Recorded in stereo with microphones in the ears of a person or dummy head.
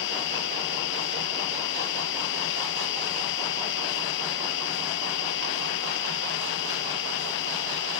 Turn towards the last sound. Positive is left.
turn(degrees=70)  # may be behind; listen again after turning